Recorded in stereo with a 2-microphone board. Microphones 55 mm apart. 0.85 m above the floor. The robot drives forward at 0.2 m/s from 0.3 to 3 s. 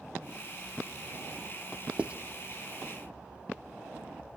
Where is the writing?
25° right (ahead or behind), 0.5 m; by 2.1 s 20° right (ahead or behind), 0.6 m.